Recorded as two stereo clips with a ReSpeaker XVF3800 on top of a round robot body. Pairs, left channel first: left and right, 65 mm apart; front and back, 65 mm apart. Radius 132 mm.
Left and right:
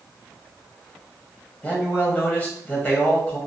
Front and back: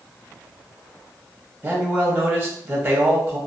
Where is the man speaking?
140° left, 1.1 m.